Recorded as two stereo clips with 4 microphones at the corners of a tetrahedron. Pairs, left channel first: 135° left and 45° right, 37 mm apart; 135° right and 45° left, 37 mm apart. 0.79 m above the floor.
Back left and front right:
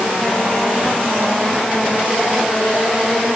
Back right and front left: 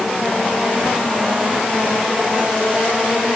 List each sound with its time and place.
Only background noise.